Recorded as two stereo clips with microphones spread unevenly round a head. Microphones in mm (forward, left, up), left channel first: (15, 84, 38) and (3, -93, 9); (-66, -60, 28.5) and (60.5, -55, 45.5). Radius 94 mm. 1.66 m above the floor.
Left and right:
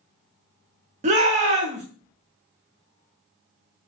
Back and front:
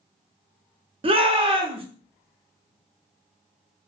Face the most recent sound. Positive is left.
turn(degrees=-40)